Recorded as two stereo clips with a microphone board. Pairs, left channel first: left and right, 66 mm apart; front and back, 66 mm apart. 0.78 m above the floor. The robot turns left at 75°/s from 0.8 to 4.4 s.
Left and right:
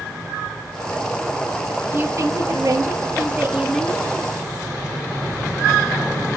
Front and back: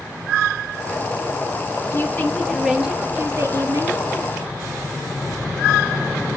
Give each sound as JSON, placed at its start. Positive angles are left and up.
{"t": 1.9, "sound": "a woman speaking", "azimuth_deg": -40, "distance_m": 1.1}